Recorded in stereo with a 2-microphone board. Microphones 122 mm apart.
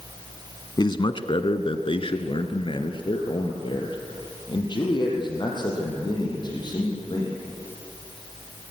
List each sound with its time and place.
0.8 s a man speaking: 35° left (ahead or behind), 1.3 m